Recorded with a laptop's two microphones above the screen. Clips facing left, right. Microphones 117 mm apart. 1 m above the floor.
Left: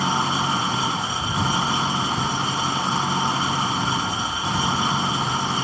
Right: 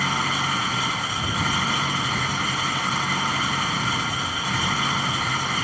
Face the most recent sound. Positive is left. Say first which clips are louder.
# left 3 dB
turn(degrees=30)  # may be behind; listen again after turning